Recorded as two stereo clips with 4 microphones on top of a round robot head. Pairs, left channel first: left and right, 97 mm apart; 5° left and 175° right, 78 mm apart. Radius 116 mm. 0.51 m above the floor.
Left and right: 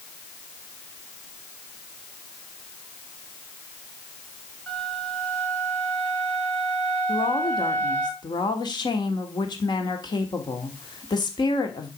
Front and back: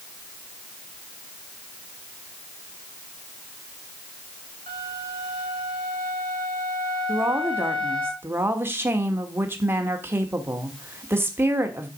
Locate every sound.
4.7 s a flute: 10° left, 6 m
7.1 s a woman speaking: 125° left, 1.5 m